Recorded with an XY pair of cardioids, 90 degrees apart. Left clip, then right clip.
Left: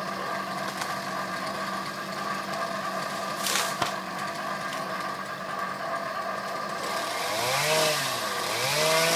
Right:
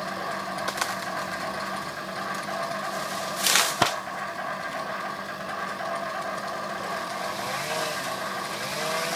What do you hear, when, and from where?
0.0 s an insect: 35° right, 1.3 m